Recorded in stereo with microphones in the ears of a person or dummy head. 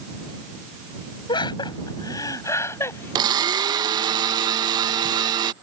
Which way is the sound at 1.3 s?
30° left (ahead or behind).